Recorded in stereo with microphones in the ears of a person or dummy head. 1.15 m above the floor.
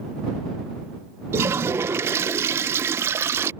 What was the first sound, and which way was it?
A toilet flushing, 15° right (ahead or behind).